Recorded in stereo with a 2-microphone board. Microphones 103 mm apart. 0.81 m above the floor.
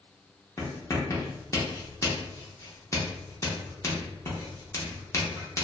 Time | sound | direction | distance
0.6 | writing | 30° left (ahead or behind) | 0.8 m